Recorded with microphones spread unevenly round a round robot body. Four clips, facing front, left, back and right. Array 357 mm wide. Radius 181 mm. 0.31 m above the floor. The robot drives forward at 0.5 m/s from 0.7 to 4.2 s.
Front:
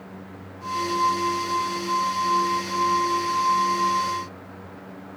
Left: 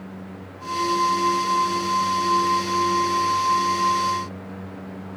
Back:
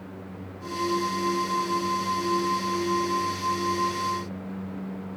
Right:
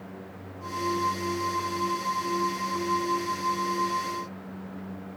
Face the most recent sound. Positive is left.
No sound to turn to.